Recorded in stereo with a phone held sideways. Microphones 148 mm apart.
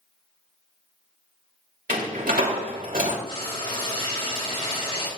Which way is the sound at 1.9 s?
80° right.